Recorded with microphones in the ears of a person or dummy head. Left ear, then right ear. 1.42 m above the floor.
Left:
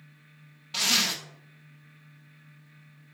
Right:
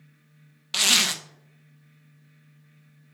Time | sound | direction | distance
0.7 | a zipper | 25° right (ahead or behind) | 0.5 m